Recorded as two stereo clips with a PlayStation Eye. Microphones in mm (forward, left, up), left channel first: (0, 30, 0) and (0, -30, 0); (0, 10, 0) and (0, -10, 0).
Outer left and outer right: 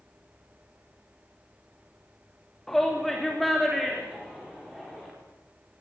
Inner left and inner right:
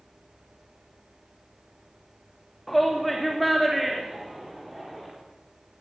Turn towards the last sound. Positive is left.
turn(degrees=0)  # may be behind; listen again after turning